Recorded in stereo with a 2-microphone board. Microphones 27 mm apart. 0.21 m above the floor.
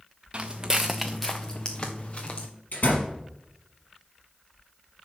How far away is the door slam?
About 3.5 m.